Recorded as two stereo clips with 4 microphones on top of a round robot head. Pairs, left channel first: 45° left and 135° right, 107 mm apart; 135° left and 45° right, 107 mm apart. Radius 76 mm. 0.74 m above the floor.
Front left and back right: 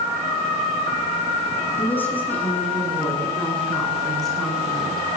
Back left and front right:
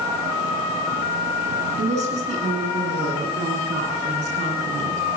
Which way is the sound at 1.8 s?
25° right.